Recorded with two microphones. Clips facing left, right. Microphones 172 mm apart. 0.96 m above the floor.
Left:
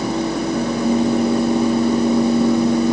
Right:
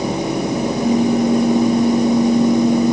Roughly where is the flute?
I don't hear a flute.